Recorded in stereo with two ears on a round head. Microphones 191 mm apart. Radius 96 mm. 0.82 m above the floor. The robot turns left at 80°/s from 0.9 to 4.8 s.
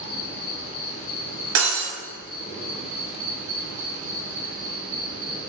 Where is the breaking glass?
80° right, 1.6 m; by 1.9 s 110° right, 1.6 m.